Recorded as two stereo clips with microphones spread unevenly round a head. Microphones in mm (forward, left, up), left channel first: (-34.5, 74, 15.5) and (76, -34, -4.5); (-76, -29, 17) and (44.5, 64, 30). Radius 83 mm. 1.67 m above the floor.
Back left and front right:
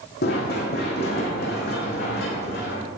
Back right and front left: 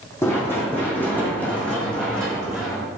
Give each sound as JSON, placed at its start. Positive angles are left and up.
{"t": 0.2, "sound": "running footsteps", "azimuth_deg": 145, "distance_m": 4.5}